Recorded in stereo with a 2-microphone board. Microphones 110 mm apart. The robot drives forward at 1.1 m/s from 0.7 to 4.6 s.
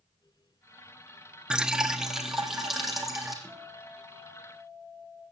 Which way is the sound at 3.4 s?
10° left (ahead or behind).